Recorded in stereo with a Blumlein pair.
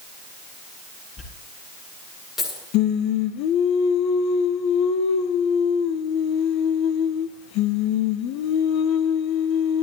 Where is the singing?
40° left, 1.3 m.